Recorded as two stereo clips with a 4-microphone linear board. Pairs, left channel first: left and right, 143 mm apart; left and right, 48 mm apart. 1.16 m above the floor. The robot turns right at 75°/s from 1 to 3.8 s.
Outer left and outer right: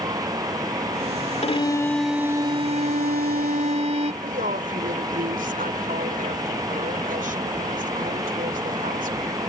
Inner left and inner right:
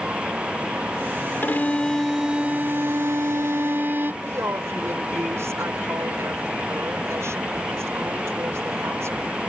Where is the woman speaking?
70° right (ahead or behind).